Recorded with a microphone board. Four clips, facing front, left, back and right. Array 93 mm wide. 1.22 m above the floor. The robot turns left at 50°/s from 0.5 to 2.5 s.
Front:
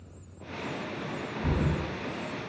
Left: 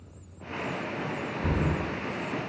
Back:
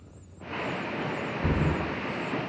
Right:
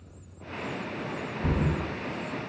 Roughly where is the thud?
Behind.